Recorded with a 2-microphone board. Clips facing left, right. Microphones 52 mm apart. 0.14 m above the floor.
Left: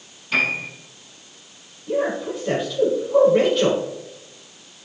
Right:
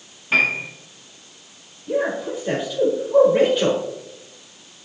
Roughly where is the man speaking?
Centre.